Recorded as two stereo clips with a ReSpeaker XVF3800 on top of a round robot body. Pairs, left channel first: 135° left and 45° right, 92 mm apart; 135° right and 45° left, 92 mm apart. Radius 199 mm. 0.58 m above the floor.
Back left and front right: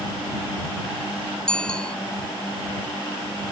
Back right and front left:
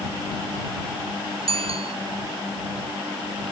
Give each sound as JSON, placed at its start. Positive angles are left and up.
{"t": 1.5, "sound": "a bicycle bell", "azimuth_deg": 55}